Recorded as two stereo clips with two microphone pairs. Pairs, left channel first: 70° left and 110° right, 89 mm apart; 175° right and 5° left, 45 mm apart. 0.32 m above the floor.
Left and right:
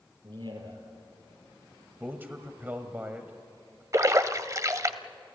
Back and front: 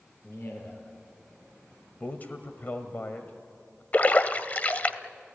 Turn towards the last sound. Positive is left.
turn(degrees=-140)